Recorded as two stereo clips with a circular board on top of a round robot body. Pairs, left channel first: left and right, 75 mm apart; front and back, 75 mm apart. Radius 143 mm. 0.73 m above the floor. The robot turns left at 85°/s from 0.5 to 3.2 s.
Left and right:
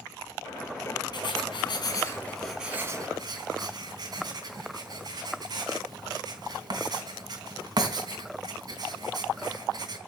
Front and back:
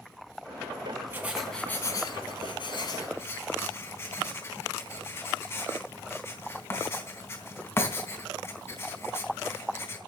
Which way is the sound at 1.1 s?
120° left.